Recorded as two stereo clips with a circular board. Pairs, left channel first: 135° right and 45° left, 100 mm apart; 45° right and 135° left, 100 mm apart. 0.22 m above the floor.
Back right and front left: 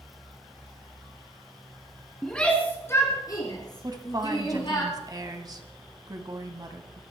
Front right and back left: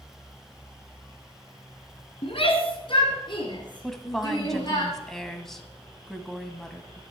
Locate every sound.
2.2 s a shout: 50° right, 2.0 m; by 4.8 s 95° right, 5 m
3.8 s a woman speaking: 40° left, 1.6 m